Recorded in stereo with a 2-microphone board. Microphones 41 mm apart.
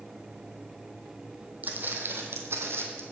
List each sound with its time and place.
1.6 s footsteps: 40° right (ahead or behind), 1.2 m; by 3.0 s 70° right (ahead or behind), 1.6 m